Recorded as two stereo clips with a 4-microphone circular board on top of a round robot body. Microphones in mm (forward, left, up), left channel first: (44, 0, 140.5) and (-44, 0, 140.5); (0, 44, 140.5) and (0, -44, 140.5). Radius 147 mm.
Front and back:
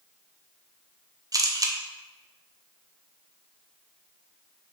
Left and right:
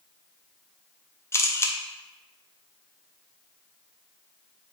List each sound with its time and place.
1.3 s a camera shutter: 145° left, 0.7 m